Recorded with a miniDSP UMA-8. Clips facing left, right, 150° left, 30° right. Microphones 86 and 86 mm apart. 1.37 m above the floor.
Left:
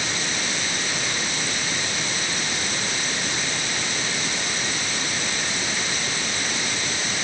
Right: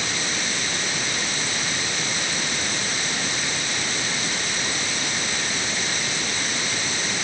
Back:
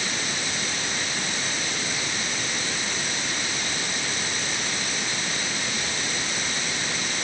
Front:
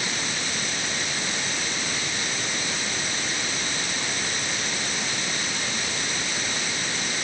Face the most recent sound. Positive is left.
No sound to turn to.